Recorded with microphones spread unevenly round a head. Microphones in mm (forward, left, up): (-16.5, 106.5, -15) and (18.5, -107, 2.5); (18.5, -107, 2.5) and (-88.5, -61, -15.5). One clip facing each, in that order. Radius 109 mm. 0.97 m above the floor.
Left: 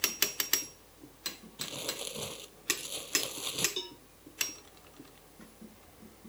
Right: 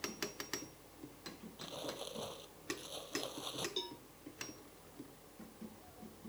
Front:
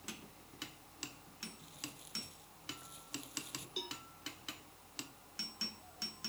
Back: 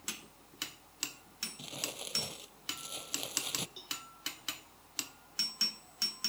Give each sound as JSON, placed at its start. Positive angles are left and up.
{"t": 1.6, "sound": "crumpling", "azimuth_deg": 150}
{"t": 3.8, "sound": "a cowbell", "azimuth_deg": 25}